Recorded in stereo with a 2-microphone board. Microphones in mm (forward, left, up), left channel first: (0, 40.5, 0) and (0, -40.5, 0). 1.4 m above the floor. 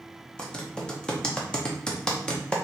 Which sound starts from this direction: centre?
Typing on a keyboard, at 0.4 s.